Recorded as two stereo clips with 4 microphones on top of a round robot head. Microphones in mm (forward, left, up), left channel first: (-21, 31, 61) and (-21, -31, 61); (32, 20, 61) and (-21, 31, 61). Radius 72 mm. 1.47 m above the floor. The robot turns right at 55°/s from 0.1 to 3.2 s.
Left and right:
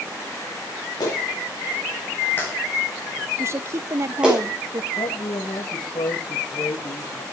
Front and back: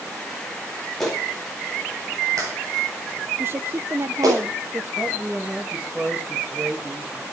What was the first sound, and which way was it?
A clap, 70° left.